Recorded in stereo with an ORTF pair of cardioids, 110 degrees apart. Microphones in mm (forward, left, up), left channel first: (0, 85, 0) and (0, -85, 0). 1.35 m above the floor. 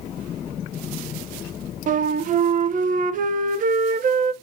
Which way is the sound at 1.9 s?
50° right.